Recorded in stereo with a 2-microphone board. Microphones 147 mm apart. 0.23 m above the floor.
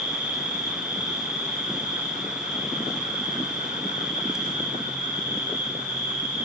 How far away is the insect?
About 5.5 m.